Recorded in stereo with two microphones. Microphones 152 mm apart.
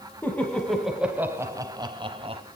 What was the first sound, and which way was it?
Laughter, 15° left (ahead or behind).